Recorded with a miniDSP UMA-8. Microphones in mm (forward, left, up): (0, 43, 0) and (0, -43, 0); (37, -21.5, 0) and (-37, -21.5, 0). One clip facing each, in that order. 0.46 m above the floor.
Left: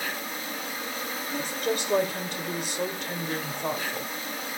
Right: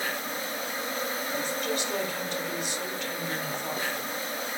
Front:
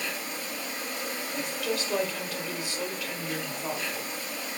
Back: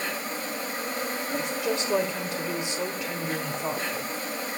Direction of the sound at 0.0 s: 140° right.